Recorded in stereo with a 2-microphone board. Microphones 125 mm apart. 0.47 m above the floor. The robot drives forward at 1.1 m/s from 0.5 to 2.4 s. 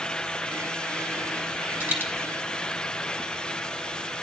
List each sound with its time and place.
1.8 s a dropped coin: 15° right (ahead or behind), 1.4 m